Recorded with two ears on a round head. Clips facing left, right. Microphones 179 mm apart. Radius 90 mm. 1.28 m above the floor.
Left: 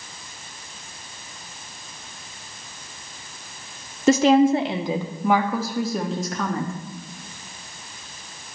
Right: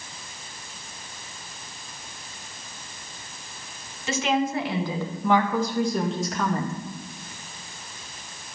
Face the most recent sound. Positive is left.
turn(degrees=-5)  # may be behind; listen again after turning